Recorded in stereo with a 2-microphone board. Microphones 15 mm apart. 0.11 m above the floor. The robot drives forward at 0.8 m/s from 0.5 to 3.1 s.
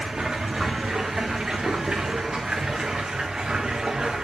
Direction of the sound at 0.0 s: 60° right (ahead or behind).